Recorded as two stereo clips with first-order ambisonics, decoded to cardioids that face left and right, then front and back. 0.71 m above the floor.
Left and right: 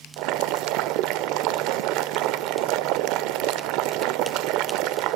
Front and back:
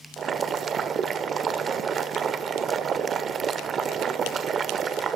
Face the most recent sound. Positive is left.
turn(degrees=-115)